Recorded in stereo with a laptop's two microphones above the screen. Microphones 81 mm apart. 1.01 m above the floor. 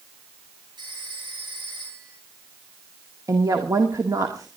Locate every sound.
0.8 s a phone ringing: 85° right, 9.5 m
3.3 s a woman speaking: 50° right (ahead or behind), 1.9 m